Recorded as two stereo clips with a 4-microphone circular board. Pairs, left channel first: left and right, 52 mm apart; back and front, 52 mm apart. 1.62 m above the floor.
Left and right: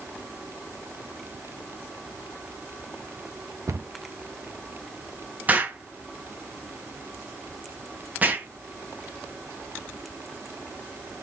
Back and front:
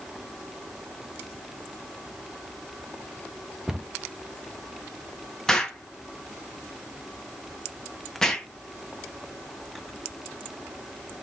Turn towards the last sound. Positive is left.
turn(degrees=-115)